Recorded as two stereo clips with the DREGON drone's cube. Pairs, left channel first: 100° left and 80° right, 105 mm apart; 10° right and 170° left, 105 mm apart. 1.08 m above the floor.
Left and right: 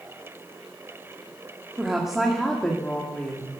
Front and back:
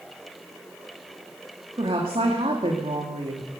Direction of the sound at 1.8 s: 160° right.